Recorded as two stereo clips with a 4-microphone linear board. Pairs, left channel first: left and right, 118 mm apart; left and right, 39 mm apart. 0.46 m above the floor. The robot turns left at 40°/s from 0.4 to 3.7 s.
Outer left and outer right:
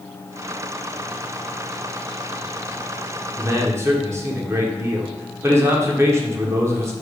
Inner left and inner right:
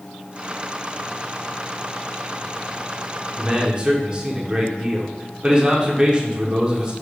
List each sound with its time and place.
3.4 s a man speaking: 25° right (ahead or behind), 0.8 m